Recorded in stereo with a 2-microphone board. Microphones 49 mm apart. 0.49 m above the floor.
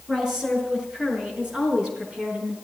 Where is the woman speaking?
10° right (ahead or behind), 5.5 m; by 2.5 s 20° right (ahead or behind), 6.5 m.